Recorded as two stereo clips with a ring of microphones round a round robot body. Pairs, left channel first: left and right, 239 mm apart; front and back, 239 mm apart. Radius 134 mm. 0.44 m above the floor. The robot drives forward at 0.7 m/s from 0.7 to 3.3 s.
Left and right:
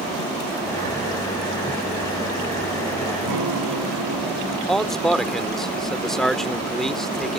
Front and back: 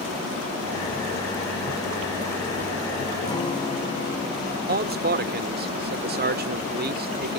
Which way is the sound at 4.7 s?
Straight behind.